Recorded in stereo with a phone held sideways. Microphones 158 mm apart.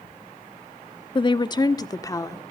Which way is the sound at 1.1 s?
30° left (ahead or behind).